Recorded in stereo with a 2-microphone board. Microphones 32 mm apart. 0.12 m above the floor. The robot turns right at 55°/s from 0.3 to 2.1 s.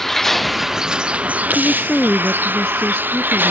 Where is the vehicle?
175° left; by 3.5 s 90° right.